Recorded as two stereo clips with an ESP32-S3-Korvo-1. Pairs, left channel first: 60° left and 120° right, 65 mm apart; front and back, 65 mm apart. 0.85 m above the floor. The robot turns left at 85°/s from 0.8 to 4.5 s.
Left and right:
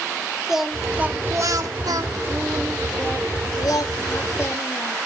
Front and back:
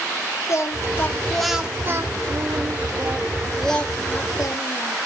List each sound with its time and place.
0.5 s singing: 35° right, 1.6 m; by 5.0 s 10° left, 1.6 m